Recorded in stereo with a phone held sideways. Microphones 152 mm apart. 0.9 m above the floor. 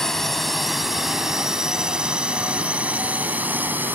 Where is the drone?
Centre (ahead or behind); by 4.0 s 10° right (ahead or behind).